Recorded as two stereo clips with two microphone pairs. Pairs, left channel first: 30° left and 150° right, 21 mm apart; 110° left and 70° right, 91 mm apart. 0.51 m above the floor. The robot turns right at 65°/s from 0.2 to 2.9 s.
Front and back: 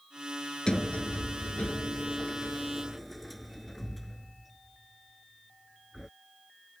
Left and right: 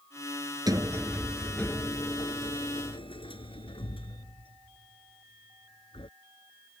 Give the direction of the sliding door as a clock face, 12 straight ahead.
1 o'clock.